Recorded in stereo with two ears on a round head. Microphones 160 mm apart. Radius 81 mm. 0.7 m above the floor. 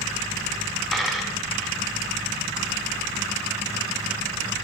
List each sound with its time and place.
0.9 s a dropped coin: centre (ahead or behind), 3 m